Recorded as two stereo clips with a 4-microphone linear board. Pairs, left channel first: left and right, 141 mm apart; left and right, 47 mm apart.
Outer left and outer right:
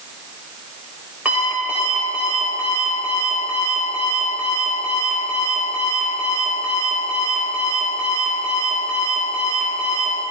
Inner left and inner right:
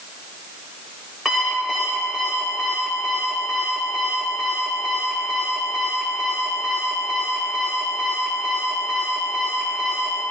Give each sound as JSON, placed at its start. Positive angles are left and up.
{"t": 1.2, "sound": "an alarm clock", "side_deg": -10, "distance_m": 3.5}